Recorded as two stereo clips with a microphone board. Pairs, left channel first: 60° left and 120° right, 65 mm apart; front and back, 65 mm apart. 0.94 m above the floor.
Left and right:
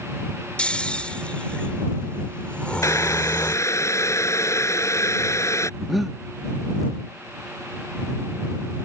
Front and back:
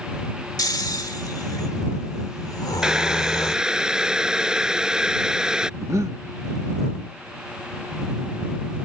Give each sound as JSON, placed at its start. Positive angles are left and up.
{"t": 0.6, "sound": "snoring", "azimuth_deg": -10}
{"t": 2.8, "sound": "boiling", "azimuth_deg": 100}
{"t": 5.8, "sound": "breathing", "azimuth_deg": 150}